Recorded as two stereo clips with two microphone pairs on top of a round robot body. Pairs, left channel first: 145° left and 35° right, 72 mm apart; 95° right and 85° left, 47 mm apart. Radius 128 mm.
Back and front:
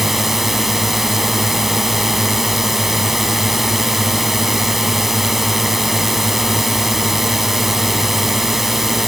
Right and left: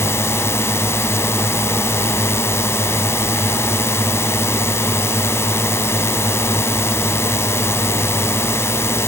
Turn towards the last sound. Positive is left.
turn(degrees=-120)